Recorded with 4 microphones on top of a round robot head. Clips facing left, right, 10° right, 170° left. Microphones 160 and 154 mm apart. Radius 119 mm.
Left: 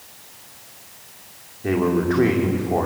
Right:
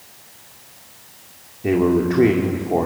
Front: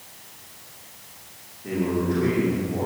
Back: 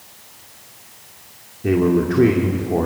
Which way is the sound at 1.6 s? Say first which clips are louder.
Right 3 dB, back 8 dB; 160° right.